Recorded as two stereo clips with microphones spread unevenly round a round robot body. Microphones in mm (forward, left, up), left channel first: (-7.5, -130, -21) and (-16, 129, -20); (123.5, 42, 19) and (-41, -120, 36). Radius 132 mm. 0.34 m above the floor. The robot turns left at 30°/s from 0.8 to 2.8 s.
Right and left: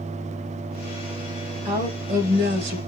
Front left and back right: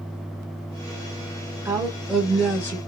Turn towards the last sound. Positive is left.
turn(degrees=115)